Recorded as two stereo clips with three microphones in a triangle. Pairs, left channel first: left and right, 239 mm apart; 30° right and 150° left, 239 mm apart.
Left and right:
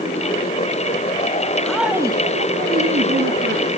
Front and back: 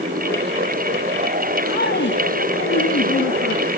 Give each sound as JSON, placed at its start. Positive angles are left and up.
{"t": 1.6, "sound": "a woman speaking", "azimuth_deg": 5, "distance_m": 2.0}